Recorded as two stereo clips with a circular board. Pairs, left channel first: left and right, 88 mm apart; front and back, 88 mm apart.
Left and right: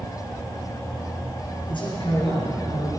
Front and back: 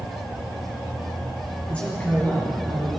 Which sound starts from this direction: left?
A man speaking, at 1.7 s.